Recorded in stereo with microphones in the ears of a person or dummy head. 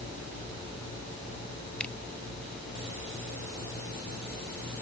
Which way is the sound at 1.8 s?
10° left (ahead or behind).